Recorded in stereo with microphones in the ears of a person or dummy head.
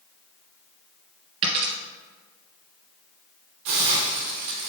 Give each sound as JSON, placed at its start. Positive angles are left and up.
{"t": 1.4, "sound": "a dropped coin", "side_deg": -30, "distance_m": 2.0}
{"t": 3.6, "sound": "a hiss", "side_deg": -20, "distance_m": 1.0}